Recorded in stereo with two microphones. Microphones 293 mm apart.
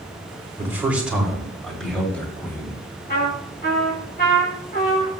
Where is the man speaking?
10° right (ahead or behind), 2.5 m; by 2.8 s 5° left (ahead or behind), 4.5 m.